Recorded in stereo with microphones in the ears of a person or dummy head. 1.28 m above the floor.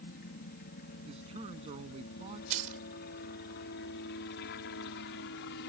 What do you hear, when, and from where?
0.0 s a helicopter: 40° left (ahead or behind); by 5.7 s 55° left (ahead or behind)
1.1 s a man speaking: 35° right (ahead or behind)
2.5 s keys jangling: 40° right (ahead or behind)